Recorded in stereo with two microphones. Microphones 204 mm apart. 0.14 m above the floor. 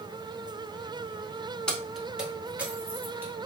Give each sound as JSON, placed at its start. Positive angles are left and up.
{"t": 1.7, "sound": "keys jangling", "side_deg": 5, "distance_m": 0.8}